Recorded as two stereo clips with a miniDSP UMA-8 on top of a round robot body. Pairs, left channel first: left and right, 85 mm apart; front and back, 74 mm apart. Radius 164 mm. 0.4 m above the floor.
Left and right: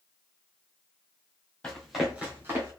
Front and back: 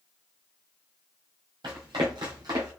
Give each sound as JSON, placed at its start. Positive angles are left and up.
{"t": 1.6, "sound": "running footsteps", "azimuth_deg": 170, "distance_m": 1.2}